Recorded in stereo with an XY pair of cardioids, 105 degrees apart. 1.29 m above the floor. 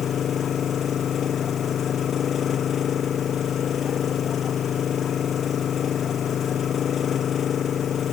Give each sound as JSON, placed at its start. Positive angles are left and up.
{"t": 0.0, "sound": "an engine running", "azimuth_deg": 55}